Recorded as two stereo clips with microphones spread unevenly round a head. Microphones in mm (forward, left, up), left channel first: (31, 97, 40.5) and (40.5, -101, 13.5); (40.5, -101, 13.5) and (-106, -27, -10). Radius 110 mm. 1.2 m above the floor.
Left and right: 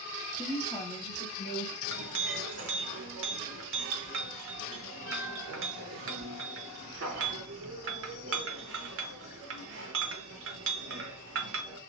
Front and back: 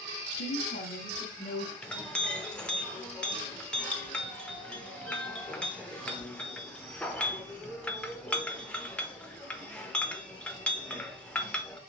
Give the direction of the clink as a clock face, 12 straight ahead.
3 o'clock.